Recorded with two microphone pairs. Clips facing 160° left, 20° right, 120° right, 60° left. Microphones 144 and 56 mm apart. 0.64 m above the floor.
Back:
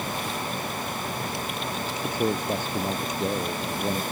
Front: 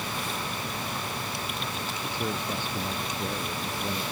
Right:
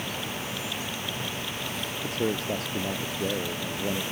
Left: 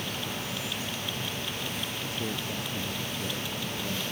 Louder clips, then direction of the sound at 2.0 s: Back 7 dB, right 10 dB; 155° right.